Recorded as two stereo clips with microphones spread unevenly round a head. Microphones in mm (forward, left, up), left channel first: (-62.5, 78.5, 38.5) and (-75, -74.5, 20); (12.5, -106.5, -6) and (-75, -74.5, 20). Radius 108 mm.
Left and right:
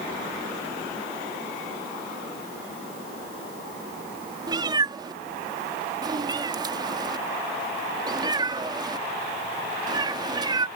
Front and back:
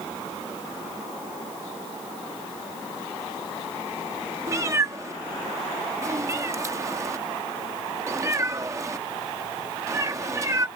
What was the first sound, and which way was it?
A cat meowing, 160° right.